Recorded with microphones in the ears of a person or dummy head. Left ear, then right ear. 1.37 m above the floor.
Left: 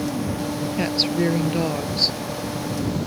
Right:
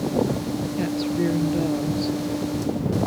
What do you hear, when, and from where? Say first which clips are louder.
0.8 s a woman speaking: left 4 dB; 40° left (ahead or behind)